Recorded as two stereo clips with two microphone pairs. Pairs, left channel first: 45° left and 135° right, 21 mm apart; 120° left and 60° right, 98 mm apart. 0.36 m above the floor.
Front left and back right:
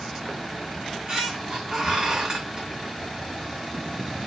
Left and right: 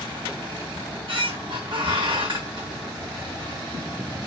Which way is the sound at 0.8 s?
80° right.